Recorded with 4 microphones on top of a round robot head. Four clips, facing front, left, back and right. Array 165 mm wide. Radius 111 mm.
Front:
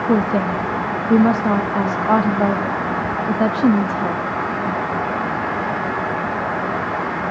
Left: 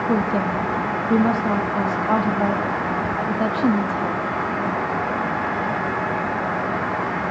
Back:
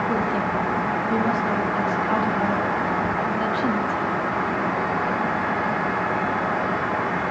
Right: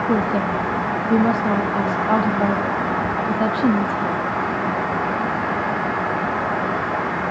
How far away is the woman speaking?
About 1.3 m.